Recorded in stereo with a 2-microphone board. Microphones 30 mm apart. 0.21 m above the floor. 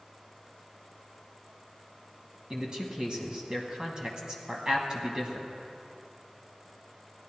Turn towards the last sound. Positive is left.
turn(degrees=-30)  # may be behind; listen again after turning